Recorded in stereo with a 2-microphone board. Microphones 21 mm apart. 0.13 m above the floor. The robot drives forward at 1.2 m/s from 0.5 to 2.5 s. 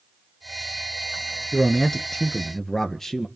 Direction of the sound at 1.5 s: 25° left (ahead or behind).